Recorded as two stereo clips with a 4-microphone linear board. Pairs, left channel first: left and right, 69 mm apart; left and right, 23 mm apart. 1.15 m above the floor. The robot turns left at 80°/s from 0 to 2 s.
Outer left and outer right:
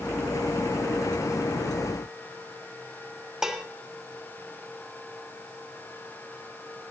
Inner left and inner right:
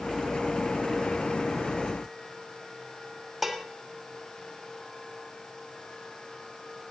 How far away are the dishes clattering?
About 1.1 m.